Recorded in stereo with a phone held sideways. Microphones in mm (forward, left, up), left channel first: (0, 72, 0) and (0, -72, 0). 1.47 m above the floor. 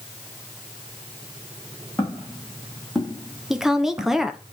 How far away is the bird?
No bird in this recording.